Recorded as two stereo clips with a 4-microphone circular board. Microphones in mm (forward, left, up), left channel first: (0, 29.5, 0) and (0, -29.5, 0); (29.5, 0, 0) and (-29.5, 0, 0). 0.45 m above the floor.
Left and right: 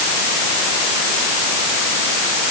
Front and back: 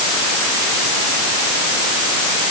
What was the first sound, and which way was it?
Only background noise.